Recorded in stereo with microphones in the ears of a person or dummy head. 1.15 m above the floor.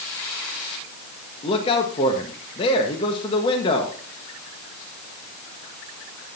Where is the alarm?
I don't hear an alarm.